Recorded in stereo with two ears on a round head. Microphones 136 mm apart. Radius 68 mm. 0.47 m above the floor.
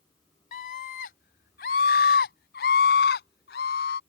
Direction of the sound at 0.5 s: 60° left (ahead or behind).